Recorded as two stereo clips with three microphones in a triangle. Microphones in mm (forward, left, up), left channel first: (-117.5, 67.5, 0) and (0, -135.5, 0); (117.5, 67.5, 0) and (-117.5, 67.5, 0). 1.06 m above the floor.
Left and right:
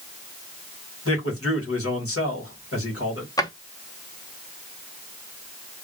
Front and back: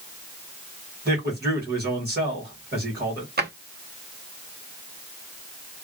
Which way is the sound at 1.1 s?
135° left.